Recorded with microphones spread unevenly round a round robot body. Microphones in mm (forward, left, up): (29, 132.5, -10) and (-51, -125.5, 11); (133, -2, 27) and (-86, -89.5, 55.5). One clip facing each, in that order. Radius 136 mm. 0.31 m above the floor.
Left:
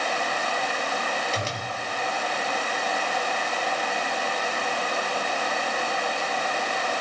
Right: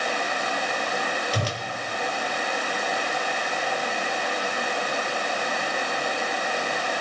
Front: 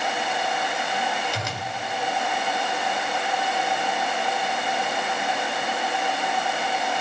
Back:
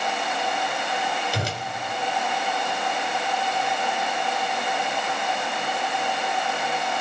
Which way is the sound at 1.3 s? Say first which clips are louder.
Right 2 dB, back 3 dB; 125° right.